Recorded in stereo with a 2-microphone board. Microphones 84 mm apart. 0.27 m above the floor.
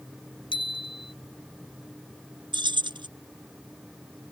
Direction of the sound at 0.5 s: 75° left (ahead or behind).